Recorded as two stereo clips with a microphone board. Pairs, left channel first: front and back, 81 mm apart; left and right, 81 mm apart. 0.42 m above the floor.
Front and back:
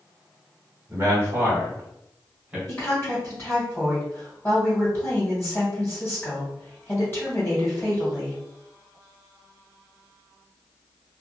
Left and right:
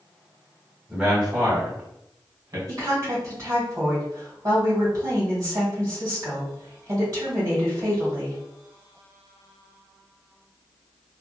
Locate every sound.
0.9 s a man speaking: straight behind, 0.9 m; by 2.6 s 105° right, 1.2 m
2.7 s a woman speaking: 55° right, 1.6 m